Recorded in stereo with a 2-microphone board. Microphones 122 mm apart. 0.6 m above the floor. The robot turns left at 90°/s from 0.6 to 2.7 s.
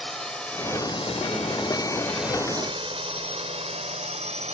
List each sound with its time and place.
0.0 s a drone: 5° left (ahead or behind); by 4.5 s 65° right (ahead or behind)